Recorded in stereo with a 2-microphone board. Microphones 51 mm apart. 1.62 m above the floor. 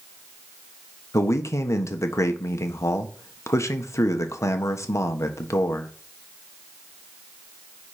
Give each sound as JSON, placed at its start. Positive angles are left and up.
{"t": 1.1, "sound": "a man speaking", "side_deg": 70, "distance_m": 1.3}